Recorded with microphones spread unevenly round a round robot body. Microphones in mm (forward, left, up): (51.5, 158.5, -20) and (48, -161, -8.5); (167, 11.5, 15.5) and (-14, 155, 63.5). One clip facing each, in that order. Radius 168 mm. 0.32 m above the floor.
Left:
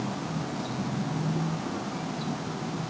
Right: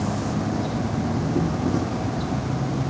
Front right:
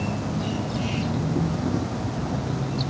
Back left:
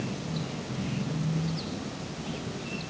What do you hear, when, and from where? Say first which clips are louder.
0.0 s an insect: right 7 dB, front right 6 dB; 60° right